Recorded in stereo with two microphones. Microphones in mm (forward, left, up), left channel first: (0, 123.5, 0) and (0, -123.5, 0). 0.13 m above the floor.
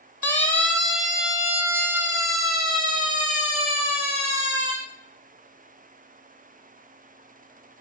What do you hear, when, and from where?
0.2 s a siren: 10° left (ahead or behind), 3.5 m; by 4.7 s 30° right (ahead or behind), 6 m